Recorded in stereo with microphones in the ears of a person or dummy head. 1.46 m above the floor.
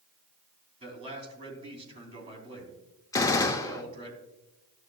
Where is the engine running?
I don't hear an engine running.